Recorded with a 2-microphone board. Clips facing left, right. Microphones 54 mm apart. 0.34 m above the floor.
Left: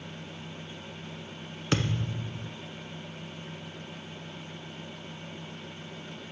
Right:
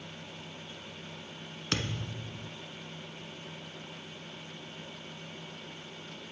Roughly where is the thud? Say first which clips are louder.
Left 6 dB; left.